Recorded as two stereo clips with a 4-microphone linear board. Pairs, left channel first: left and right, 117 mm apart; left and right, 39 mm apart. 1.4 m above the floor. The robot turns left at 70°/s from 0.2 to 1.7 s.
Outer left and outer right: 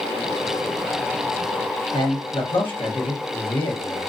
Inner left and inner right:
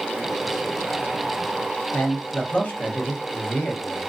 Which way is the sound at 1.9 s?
50° left (ahead or behind).